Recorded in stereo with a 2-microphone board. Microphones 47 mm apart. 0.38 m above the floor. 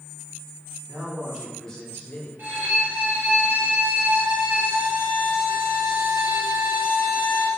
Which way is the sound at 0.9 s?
35° right (ahead or behind).